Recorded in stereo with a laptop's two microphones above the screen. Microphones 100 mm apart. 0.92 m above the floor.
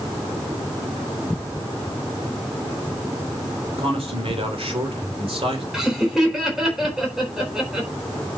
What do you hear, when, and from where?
3.8 s a man speaking: 65° right (ahead or behind), 3 m
5.7 s laughter: 5° right (ahead or behind), 4 m